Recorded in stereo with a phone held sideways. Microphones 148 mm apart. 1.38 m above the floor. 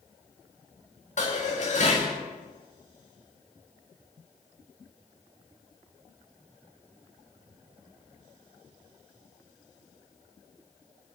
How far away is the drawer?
I don't hear a drawer.